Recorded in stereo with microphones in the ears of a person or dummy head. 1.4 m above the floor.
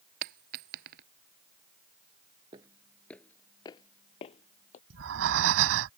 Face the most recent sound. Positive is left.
turn(degrees=-75)  # may be behind; listen again after turning